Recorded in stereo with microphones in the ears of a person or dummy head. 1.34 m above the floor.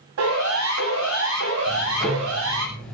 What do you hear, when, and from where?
0.2 s a siren: 85° right, 8 m; by 2.7 s 80° right, 6.5 m
1.7 s ticking: 10° left (ahead or behind), 4.5 m